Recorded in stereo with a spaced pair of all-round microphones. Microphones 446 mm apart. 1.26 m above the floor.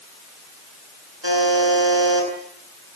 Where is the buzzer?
75° right (ahead or behind), 9 m.